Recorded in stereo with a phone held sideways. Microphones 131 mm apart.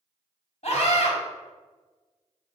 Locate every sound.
0.6 s a scream: 60° left (ahead or behind), 4 m